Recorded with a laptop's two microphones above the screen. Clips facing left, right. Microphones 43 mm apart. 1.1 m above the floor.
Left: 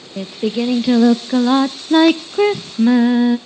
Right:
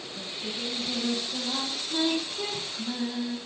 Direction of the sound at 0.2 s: 80° left.